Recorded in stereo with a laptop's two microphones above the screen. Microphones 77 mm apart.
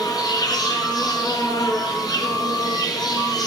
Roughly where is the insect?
Left.